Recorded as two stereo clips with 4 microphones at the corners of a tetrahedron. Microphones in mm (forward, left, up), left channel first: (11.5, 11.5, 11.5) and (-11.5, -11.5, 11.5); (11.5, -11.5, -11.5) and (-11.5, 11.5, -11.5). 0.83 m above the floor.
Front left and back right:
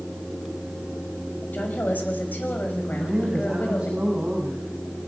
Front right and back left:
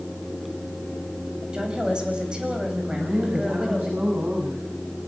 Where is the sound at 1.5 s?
70° left, 5 m.